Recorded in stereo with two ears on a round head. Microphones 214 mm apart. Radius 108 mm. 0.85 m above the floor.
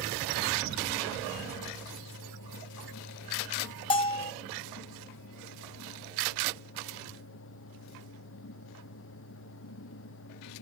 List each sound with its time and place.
3.9 s a bell: 20° left (ahead or behind), 0.8 m